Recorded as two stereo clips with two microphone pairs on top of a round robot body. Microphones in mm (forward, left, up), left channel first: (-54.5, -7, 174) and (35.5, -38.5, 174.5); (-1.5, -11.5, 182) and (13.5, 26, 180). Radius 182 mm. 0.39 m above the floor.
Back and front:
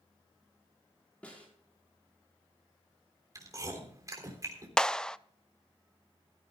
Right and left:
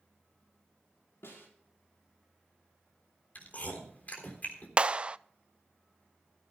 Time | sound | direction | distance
1.2 | a snare drum | 120° right | 5.5 m
3.4 | chewing | 70° right | 3.5 m
4.8 | a clap | 85° left | 0.6 m